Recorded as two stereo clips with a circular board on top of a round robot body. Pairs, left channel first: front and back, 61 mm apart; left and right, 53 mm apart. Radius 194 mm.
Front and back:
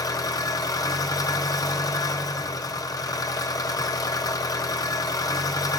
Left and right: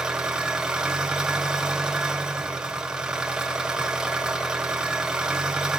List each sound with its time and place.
0.0 s an engine running: 10° right, 1.6 m